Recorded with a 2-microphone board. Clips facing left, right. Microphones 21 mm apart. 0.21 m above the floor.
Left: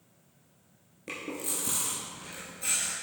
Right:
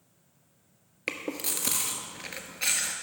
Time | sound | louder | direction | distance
1.1 | chewing | right 3 dB | 80° right | 1.1 m